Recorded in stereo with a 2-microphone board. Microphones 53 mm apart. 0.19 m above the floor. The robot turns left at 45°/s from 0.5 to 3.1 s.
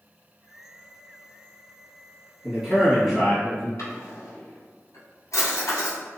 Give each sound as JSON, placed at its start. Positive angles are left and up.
{"t": 2.4, "sound": "a man speaking", "side_deg": -15, "distance_m": 1.5}
{"t": 3.8, "sound": "a drawer", "side_deg": 75, "distance_m": 1.6}